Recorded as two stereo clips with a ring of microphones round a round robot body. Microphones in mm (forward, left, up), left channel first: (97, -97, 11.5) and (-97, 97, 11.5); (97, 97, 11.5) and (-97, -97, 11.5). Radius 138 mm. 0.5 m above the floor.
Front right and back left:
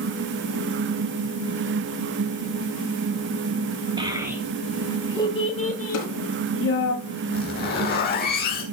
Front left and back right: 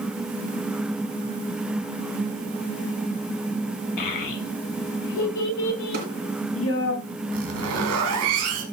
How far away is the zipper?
About 3.5 m.